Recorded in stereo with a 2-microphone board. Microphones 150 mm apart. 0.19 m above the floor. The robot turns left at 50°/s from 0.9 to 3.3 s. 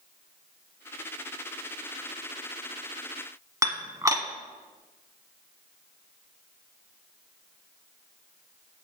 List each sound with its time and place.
3.6 s dishes clattering: 25° right (ahead or behind), 0.9 m